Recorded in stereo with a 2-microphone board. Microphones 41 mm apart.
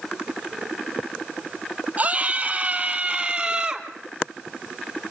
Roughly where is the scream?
Right.